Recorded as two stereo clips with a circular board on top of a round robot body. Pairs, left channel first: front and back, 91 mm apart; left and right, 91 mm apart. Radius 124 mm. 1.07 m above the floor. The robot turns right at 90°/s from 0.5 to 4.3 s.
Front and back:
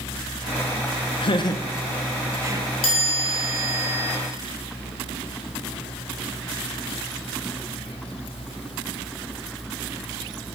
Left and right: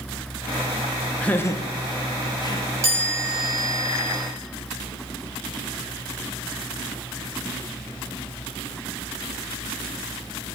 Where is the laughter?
10° left, 0.8 m; by 2.7 s 150° left, 0.8 m.